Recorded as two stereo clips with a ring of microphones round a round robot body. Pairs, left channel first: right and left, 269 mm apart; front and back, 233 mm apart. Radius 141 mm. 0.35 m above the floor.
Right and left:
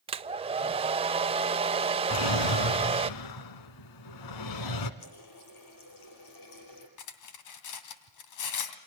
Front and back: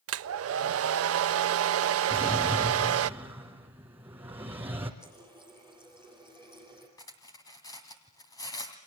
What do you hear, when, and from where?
0.1 s a hair dryer: 160° left, 0.6 m
2.1 s a drawer: 95° right, 1.7 m
5.0 s a running tap: 80° right, 7 m
7.0 s cutlery clinking: 75° right, 2 m